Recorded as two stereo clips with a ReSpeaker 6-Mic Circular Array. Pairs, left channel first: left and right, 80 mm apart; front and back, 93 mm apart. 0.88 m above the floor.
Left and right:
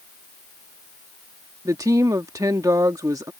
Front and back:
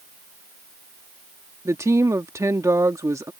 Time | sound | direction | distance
1.6 | a woman speaking | 130° right | ?